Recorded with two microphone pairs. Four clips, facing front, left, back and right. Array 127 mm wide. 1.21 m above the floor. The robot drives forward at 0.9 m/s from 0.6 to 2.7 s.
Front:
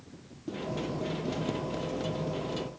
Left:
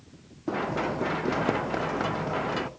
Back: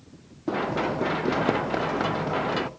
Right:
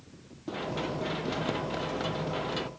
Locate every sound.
0.5 s running footsteps: 155° left; by 2.7 s 165° left